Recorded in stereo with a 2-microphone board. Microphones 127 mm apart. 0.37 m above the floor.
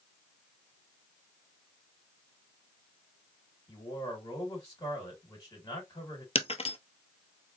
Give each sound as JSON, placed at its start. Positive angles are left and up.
{"t": 3.7, "sound": "a man speaking", "side_deg": 30, "distance_m": 1.6}
{"t": 6.3, "sound": "breaking glass", "side_deg": 55, "distance_m": 0.6}